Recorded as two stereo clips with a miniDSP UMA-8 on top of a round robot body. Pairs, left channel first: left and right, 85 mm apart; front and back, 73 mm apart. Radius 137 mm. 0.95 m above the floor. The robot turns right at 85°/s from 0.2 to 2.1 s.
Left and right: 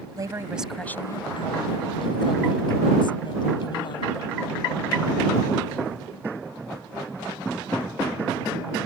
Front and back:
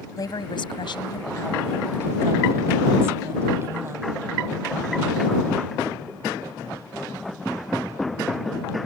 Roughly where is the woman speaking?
Ahead right.